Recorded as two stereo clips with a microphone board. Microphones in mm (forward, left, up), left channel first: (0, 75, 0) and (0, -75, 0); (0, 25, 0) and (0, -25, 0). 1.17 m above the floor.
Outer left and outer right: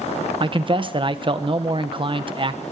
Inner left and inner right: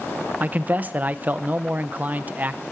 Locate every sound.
0.4 s a man speaking: 35° right (ahead or behind), 1.0 m